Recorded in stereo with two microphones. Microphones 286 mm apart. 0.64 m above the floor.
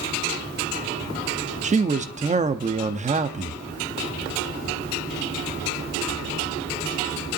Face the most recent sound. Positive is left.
turn(degrees=-25)  # may be behind; listen again after turning